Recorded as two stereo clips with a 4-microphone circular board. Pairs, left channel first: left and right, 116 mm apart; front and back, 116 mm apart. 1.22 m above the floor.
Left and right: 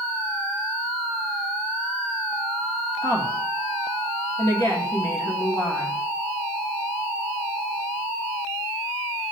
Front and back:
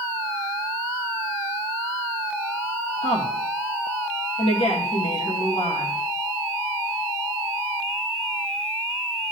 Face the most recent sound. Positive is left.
turn(degrees=30)